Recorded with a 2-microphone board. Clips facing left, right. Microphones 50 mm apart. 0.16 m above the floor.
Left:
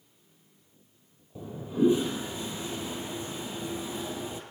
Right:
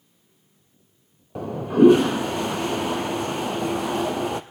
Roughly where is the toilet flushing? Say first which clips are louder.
Right 10 dB; right.